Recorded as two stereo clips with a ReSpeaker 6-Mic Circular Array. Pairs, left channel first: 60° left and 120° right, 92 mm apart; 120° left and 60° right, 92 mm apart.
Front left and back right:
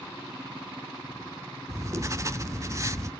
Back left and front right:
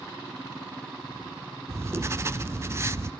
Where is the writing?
95° right, 0.5 m.